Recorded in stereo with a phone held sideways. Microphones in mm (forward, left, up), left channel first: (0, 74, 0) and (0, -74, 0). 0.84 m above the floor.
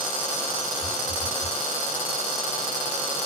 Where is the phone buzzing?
80° left, 4.5 m.